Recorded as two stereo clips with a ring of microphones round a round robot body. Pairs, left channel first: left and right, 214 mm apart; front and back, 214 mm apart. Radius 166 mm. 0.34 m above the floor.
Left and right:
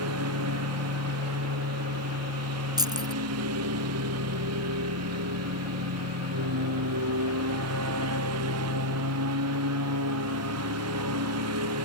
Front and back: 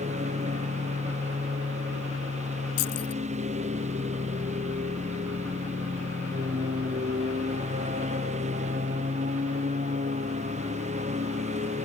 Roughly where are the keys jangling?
Ahead.